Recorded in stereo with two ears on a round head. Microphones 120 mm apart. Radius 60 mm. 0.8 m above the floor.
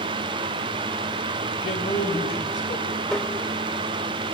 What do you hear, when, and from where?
1.6 s a man speaking: 40° left (ahead or behind), 4 m; by 3.0 s 65° left (ahead or behind), 4.5 m
3.1 s tapping: 5° left (ahead or behind), 2.5 m